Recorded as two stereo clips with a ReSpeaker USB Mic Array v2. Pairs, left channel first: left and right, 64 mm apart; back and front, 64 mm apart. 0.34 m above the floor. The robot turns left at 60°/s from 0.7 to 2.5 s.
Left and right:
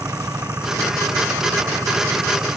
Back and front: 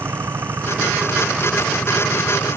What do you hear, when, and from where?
0.0 s an engine running: 45° right; by 2.6 s 150° right